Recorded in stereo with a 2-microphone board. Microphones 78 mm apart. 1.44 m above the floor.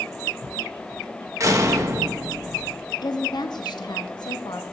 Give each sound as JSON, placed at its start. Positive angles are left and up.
{"t": 1.4, "sound": "a door slam", "side_deg": -40, "distance_m": 1.1}
{"t": 3.0, "sound": "a woman speaking", "side_deg": 65, "distance_m": 0.8}